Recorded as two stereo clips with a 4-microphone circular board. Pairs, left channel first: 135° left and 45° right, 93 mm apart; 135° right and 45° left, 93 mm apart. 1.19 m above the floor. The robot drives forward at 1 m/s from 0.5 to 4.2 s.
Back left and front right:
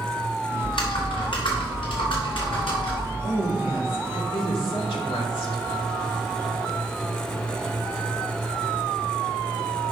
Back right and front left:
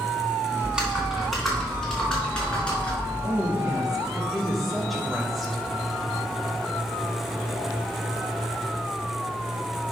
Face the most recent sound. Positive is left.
turn(degrees=135)